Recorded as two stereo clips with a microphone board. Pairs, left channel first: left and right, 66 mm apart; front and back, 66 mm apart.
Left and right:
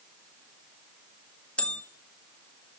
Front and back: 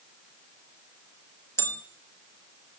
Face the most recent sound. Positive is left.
turn(degrees=25)